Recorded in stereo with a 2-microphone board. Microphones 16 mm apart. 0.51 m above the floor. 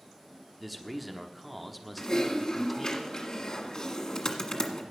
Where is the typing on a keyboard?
45° left (ahead or behind), 1.6 m.